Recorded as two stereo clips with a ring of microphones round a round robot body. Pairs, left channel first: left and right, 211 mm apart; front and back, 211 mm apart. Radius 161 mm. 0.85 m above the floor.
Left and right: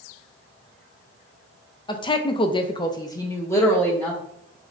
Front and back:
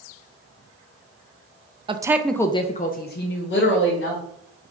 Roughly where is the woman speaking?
Behind left.